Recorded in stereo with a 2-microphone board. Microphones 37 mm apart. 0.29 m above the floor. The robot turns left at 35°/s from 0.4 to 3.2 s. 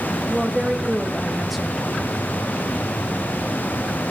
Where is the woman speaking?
15° right (ahead or behind), 1.5 m; by 1.9 s centre (ahead or behind), 1.5 m.